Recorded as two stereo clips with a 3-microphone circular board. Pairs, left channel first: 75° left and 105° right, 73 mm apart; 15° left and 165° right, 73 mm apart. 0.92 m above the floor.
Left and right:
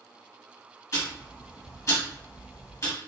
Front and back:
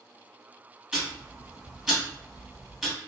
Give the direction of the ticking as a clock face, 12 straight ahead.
8 o'clock.